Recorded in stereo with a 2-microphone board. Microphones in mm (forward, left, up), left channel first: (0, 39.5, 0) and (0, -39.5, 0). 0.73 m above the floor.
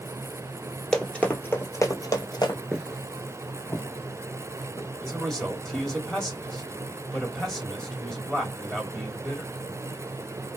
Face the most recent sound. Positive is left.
turn(degrees=5)  # may be behind; listen again after turning